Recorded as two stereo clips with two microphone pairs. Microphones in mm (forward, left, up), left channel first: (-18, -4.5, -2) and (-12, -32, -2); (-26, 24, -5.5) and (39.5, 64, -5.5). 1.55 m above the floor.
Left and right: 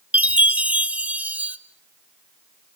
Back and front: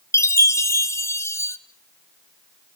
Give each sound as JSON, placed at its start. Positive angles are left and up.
{"t": 0.1, "sound": "a chime", "azimuth_deg": -100, "distance_m": 1.1}